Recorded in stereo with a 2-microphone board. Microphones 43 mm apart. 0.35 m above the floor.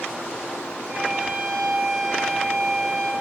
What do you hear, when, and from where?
0.9 s a violin: 65° right (ahead or behind), 3 m